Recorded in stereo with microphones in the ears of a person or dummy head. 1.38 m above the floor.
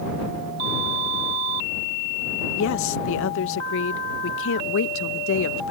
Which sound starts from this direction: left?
A woman speaking, at 2.6 s.